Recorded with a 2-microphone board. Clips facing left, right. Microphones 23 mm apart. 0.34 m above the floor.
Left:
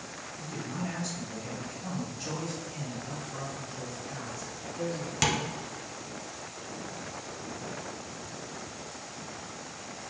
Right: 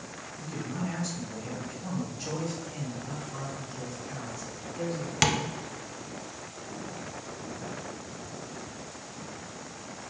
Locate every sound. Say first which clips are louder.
0.4 s a man speaking: right 2 dB; 20° right (ahead or behind), 2 m
3.1 s a man speaking: even; 10° right (ahead or behind), 1.3 m
5.2 s tapping: right 2 dB; 25° right (ahead or behind), 0.5 m